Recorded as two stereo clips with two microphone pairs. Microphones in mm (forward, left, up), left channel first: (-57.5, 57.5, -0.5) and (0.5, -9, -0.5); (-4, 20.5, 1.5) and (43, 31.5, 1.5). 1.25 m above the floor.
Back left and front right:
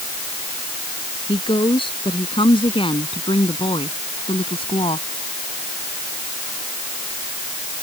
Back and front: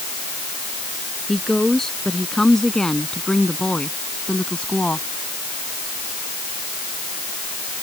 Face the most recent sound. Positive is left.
turn(degrees=125)